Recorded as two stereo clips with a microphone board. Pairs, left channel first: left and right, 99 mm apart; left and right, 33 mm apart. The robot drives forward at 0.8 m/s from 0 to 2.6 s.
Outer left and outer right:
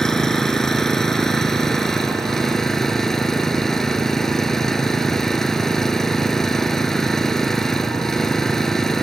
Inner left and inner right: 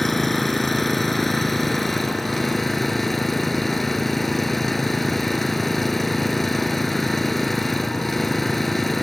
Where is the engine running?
5° left (ahead or behind).